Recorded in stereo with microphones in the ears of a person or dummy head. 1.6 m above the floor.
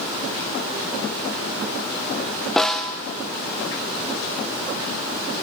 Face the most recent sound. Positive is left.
turn(degrees=0)  # may be behind; listen again after turning